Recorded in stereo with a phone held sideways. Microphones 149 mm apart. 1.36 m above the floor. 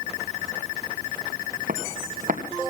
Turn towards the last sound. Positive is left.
turn(degrees=-60)  # may be behind; listen again after turning